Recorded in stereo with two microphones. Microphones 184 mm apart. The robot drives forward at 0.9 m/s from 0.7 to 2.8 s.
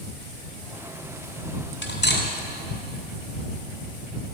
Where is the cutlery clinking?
80° left, 2.5 m; by 2.3 s 75° left (ahead or behind), 2.5 m.